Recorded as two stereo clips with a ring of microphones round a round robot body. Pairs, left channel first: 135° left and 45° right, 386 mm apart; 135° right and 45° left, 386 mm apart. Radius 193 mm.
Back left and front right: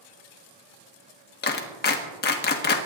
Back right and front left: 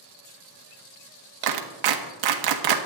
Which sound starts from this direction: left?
A clap, at 1.4 s.